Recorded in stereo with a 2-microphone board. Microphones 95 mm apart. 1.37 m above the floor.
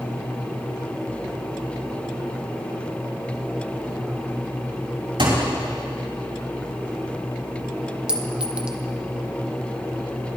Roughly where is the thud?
Right.